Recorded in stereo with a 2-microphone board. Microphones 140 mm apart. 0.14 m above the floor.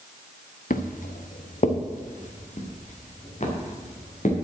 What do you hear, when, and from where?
0.7 s footsteps: 75° left (ahead or behind), 1.5 m; by 4.3 s 55° left (ahead or behind), 5 m